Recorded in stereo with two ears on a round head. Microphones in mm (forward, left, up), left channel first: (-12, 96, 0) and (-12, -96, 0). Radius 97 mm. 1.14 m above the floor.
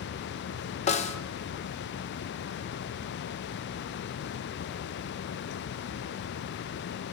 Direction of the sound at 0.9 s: 35° left (ahead or behind).